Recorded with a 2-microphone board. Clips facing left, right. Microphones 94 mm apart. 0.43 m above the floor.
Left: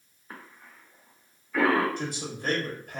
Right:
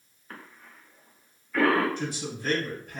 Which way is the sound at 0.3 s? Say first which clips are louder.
Even; 10° left (ahead or behind).